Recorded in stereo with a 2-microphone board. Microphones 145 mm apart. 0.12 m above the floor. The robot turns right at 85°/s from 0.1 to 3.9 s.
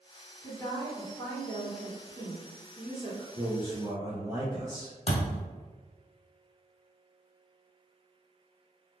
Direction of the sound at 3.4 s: 30° right (ahead or behind).